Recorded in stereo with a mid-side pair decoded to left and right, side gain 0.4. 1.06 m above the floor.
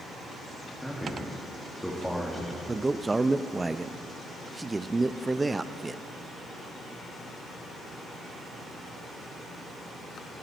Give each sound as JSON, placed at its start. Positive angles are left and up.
{"t": 0.8, "sound": "a man speaking", "azimuth_deg": 0, "distance_m": 2.0}
{"t": 2.7, "sound": "a man speaking", "azimuth_deg": -25, "distance_m": 0.6}